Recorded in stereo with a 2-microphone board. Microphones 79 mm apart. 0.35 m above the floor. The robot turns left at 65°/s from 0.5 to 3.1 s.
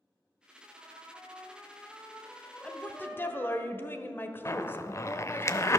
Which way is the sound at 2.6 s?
10° left (ahead or behind).